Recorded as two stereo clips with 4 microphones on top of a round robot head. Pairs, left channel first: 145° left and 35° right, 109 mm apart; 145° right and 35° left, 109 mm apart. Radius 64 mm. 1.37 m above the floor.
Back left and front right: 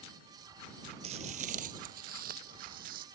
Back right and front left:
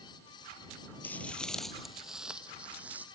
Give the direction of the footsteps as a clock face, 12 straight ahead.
2 o'clock.